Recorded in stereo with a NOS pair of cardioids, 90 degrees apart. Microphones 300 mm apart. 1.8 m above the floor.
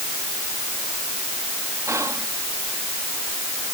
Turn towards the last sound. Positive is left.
turn(degrees=-10)